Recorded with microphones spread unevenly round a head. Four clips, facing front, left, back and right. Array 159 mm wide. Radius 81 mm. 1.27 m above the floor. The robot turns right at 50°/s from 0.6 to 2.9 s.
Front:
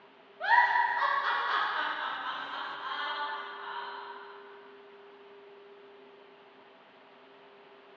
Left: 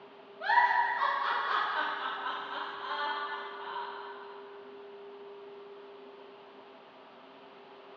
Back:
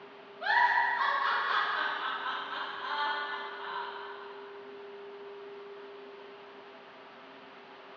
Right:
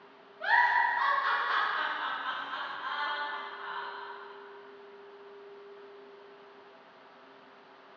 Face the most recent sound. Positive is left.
turn(degrees=130)